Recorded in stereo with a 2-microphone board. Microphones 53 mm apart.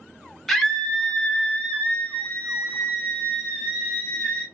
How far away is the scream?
About 1.0 m.